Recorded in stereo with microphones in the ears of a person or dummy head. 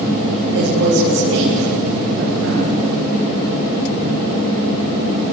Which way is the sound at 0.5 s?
80° right.